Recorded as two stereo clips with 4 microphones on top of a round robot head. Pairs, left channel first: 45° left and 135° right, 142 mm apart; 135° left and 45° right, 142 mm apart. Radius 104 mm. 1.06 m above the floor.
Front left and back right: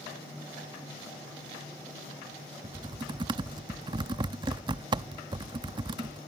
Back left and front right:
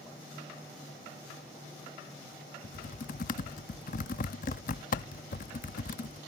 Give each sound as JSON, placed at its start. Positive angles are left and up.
{"t": 2.6, "sound": "typing on a keyboard", "azimuth_deg": 165}